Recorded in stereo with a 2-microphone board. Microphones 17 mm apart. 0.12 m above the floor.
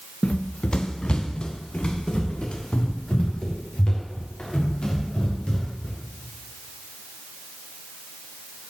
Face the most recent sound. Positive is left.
turn(degrees=70)  # may be behind; listen again after turning